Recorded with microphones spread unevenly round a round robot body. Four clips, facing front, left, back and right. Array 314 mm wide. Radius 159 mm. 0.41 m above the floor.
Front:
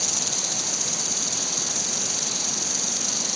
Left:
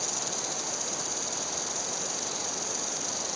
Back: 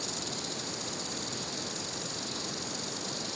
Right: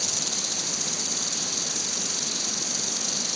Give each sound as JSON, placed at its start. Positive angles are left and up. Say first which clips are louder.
{"t": 0.0, "sound": "an insect", "louder": "left 1 dB, front 4 dB", "azimuth_deg": -40}